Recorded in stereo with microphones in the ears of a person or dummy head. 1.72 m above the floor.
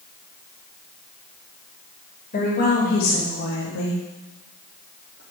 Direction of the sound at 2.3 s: 50° left (ahead or behind).